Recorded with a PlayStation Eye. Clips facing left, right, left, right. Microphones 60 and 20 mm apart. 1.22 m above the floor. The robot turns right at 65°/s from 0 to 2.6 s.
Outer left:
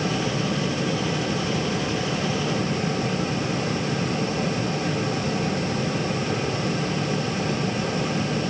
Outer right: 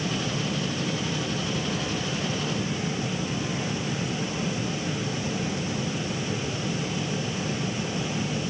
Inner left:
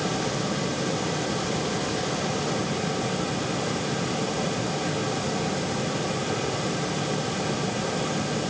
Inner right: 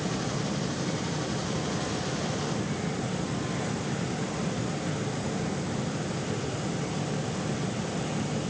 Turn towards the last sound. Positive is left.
No sound to turn to.